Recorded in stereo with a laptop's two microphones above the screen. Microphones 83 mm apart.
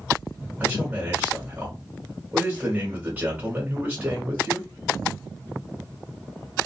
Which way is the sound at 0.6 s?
20° right (ahead or behind).